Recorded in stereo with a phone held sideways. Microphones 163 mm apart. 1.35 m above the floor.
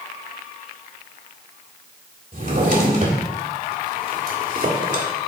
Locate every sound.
2.3 s a drawer: 50° right (ahead or behind), 1.9 m